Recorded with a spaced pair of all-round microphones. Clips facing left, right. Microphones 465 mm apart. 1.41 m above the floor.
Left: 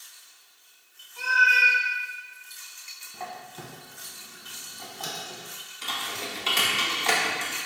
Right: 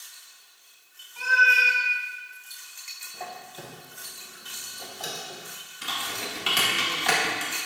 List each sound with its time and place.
1.2 s a cat meowing: 20° right (ahead or behind), 0.9 m
3.1 s a squeak: 20° left (ahead or behind), 0.6 m
5.8 s typing on a keyboard: 30° right (ahead or behind), 0.8 m